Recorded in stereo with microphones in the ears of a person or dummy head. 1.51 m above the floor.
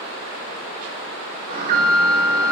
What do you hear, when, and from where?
1.5 s an alarm: 45° right (ahead or behind), 1.0 m